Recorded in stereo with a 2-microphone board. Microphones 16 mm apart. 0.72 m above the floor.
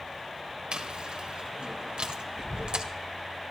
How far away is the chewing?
About 2.0 m.